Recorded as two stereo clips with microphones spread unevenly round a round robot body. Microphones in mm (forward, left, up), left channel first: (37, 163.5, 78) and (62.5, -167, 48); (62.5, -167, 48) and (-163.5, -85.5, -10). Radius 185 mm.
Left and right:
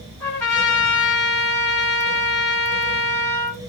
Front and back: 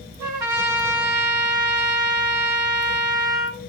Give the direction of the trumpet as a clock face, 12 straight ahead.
6 o'clock.